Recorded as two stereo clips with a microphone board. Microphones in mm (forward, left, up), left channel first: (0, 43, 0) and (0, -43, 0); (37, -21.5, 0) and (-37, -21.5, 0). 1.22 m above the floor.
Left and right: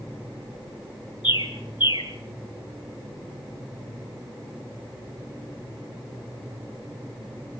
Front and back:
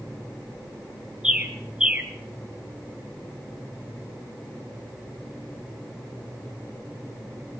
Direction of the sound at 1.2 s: 100° left.